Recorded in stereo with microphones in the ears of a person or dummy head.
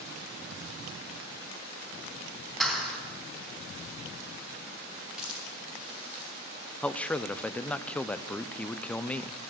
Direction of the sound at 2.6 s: Centre (ahead or behind).